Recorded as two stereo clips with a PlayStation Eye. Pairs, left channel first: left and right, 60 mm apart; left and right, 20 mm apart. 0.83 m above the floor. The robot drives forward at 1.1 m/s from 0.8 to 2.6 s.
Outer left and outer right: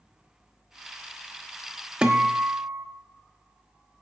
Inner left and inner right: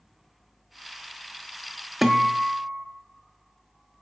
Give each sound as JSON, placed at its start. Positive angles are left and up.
{"t": 2.0, "sound": "a guitar", "side_deg": -15, "distance_m": 1.3}